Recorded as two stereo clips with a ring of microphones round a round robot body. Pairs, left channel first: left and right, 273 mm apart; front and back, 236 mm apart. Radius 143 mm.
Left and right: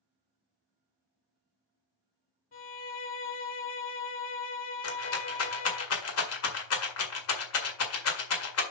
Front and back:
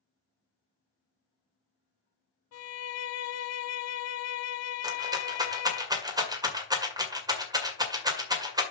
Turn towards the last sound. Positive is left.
turn(degrees=110)